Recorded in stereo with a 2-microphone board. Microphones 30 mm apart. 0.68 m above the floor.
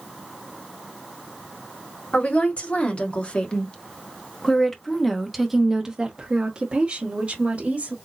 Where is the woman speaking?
50° left (ahead or behind), 1.9 m; by 7.9 s 50° right (ahead or behind), 1.6 m.